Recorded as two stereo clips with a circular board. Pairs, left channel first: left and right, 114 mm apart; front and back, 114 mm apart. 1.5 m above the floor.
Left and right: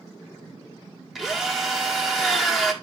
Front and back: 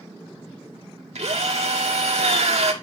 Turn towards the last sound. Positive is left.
turn(degrees=180)